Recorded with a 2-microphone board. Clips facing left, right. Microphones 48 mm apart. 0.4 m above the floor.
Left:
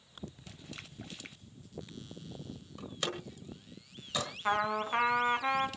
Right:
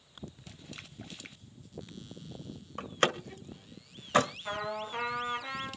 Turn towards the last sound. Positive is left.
turn(degrees=40)  # may be behind; listen again after turning